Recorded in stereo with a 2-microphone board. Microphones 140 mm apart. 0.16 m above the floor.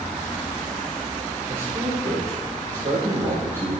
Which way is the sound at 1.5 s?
45° right (ahead or behind).